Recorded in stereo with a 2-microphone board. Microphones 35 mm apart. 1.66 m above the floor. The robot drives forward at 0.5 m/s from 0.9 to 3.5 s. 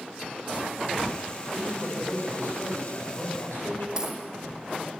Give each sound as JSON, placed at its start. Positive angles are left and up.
{"t": 1.5, "sound": "a man speaking", "side_deg": 65, "distance_m": 8.0}
{"t": 4.0, "sound": "a dropped coin", "side_deg": -20, "distance_m": 6.0}